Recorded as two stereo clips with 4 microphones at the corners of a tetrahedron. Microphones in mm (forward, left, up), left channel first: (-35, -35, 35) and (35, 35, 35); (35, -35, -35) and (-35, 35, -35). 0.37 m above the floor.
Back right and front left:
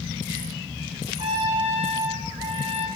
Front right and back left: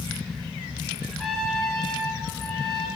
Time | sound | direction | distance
1.2 | a trumpet | 40° left | 2.5 m